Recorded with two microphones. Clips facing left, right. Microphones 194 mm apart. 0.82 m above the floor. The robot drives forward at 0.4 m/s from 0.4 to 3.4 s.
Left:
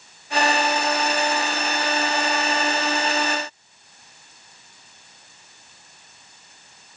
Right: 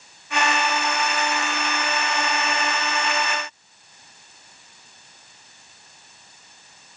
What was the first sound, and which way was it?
Only background noise.